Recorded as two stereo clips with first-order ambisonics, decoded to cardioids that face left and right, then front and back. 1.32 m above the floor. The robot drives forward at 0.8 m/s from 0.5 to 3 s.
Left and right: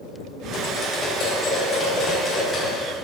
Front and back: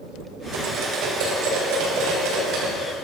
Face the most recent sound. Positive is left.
turn(degrees=165)